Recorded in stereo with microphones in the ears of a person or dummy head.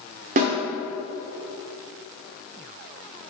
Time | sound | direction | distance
0.4 | a snare drum | 45° right (ahead or behind) | 1.4 m